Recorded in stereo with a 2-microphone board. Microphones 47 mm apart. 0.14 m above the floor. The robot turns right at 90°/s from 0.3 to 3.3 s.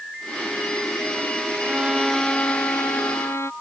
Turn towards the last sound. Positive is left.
turn(degrees=105)